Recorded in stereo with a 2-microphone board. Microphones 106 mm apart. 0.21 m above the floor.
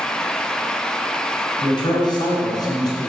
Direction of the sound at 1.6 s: 50° left (ahead or behind).